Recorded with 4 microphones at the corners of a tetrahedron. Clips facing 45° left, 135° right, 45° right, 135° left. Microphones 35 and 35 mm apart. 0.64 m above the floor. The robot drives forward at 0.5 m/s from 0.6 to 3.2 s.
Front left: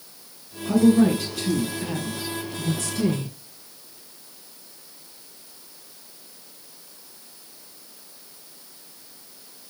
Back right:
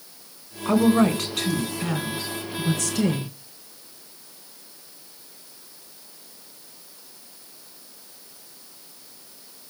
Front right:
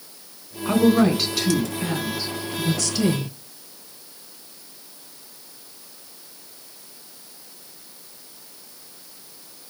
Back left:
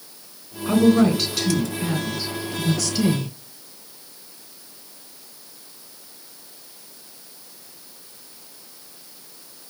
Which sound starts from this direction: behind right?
A woman speaking, at 0.7 s.